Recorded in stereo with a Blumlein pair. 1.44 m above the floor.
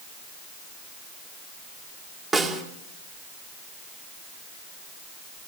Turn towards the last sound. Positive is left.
turn(degrees=-20)